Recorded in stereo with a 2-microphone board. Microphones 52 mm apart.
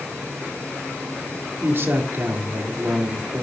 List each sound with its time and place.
1.6 s a man speaking: 50° right (ahead or behind), 1.8 m